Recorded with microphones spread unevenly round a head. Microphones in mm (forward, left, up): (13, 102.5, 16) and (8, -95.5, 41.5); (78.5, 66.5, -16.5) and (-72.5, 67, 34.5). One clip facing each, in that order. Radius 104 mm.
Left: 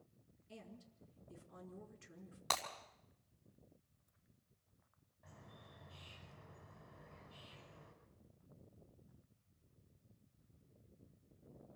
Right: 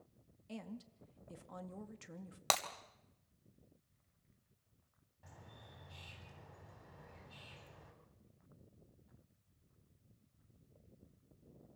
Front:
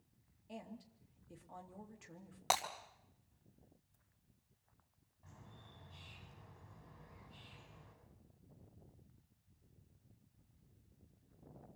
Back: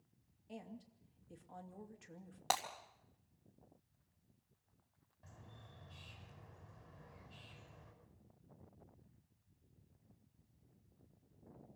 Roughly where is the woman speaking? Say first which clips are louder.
Right 8 dB, front 1 dB; right.